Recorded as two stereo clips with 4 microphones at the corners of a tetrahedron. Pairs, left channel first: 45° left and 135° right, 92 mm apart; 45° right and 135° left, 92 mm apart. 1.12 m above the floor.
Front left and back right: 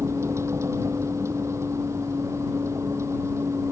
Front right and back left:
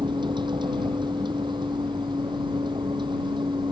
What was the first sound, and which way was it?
A vehicle, 165° left.